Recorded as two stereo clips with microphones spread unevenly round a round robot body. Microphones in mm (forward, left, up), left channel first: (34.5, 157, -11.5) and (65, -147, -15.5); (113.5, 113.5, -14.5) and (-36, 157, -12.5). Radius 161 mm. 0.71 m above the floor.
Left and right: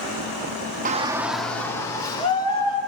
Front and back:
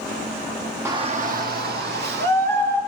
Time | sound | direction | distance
0.8 | a shout | 130° right | 0.8 m